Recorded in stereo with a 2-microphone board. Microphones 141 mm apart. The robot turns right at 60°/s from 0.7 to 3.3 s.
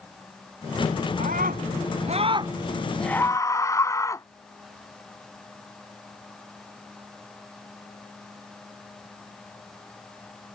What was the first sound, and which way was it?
A scream, 105° right.